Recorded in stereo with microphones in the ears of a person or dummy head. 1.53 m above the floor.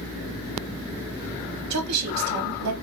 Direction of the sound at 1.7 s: 85° right.